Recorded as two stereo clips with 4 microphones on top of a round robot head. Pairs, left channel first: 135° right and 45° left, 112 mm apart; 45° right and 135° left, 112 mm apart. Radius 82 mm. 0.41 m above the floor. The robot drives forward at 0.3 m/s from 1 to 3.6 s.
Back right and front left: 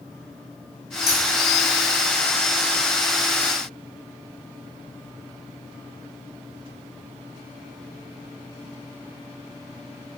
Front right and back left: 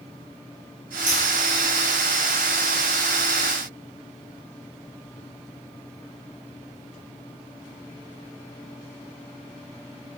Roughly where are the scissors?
Behind.